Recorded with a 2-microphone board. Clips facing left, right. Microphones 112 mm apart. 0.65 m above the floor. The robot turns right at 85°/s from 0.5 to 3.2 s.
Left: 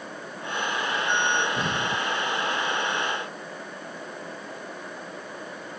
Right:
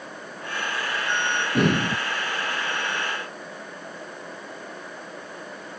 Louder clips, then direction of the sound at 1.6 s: Right 6 dB; 80° right.